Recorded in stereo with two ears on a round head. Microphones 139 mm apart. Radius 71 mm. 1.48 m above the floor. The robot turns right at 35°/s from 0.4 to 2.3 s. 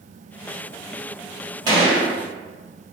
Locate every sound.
1.7 s a gunshot: 25° right (ahead or behind), 2.0 m; by 2.1 s 15° right (ahead or behind), 2.0 m